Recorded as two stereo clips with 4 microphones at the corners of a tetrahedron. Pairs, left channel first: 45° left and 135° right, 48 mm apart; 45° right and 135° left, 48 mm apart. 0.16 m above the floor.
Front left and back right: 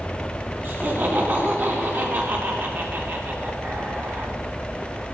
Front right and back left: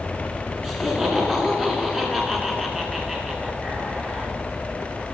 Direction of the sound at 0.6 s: 140° right.